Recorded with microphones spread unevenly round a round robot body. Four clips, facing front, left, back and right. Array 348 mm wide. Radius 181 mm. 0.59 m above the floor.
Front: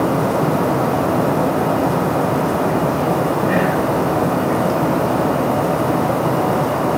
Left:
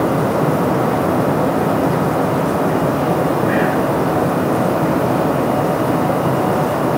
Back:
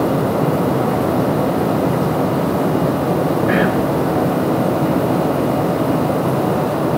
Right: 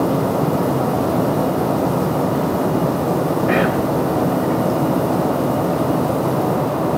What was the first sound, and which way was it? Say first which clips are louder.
Whispering: left 1 dB, back 1 dB; 140° right.